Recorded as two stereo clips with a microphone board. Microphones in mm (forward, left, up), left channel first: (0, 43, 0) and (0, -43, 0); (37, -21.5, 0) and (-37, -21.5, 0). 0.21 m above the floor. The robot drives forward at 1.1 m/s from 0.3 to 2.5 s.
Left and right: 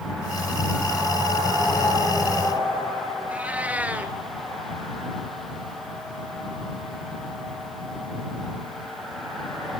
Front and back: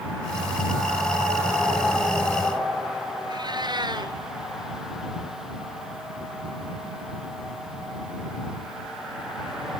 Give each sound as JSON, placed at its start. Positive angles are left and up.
{"t": 3.3, "sound": "a cat meowing", "azimuth_deg": -165, "distance_m": 2.0}